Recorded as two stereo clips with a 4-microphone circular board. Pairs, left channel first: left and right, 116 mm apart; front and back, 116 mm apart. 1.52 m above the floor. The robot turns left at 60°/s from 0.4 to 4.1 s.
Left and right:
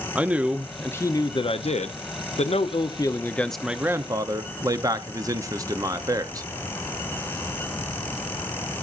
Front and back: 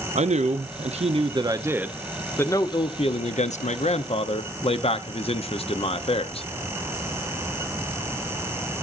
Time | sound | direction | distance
0.1 | a man speaking | 170° right | 0.6 m